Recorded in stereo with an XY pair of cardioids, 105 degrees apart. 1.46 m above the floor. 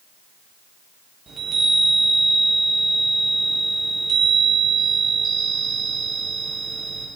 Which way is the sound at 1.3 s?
40° right.